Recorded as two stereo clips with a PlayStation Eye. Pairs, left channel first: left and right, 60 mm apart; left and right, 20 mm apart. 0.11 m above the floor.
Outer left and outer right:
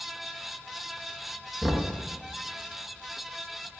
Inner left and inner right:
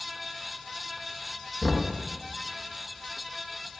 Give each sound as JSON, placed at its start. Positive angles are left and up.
{"t": 1.6, "sound": "knocking", "side_deg": -10, "distance_m": 0.8}